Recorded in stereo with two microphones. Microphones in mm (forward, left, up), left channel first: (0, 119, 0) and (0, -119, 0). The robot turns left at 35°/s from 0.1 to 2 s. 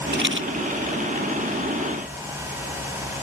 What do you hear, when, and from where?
0.1 s a rattle: 50° right (ahead or behind); by 0.5 s 60° right (ahead or behind)